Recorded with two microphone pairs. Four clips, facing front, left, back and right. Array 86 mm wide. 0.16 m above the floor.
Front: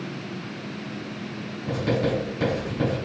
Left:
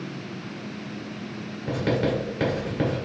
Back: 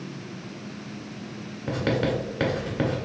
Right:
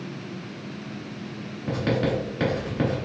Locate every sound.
1.7 s writing: 165° right, 1.9 m